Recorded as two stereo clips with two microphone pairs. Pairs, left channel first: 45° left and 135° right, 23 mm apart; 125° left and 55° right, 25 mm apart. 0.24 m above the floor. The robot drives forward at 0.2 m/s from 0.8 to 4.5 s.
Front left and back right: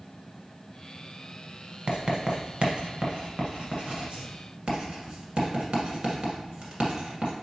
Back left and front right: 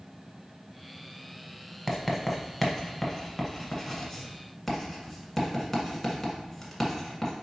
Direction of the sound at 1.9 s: 145° right.